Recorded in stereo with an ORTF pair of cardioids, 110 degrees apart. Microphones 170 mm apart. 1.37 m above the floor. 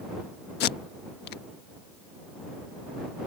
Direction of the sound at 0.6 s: 70° left.